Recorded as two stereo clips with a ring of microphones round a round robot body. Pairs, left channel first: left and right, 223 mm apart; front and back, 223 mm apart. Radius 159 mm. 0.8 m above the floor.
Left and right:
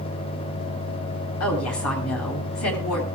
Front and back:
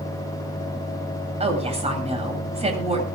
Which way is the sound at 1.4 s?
120° left.